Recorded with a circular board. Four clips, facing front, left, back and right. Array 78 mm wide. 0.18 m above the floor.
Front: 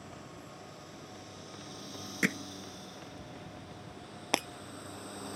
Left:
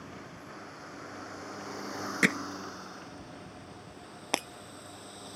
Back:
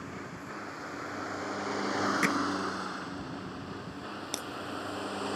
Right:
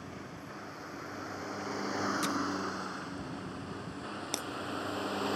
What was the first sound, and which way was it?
A vehicle, straight behind.